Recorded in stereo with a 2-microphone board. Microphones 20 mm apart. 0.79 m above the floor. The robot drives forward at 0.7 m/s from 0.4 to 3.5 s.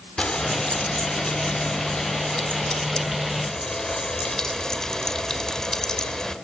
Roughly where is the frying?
Left.